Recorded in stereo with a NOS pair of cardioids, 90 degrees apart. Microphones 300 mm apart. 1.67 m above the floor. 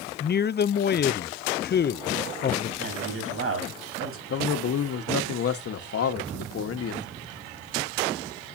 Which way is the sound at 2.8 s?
50° right.